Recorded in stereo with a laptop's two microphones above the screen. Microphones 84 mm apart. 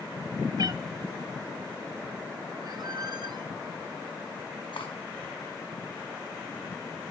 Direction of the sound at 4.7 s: 75° left (ahead or behind).